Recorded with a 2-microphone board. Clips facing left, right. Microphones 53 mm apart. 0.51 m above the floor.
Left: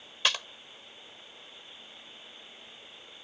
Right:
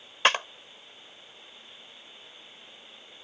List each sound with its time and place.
0.2 s a clap: 45° right (ahead or behind)